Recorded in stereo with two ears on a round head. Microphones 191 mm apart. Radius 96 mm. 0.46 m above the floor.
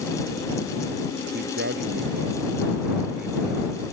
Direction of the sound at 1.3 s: 50° right (ahead or behind).